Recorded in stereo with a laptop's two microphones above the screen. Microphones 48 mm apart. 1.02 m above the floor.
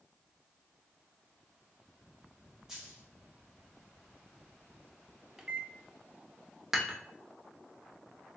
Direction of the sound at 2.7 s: 15° right (ahead or behind).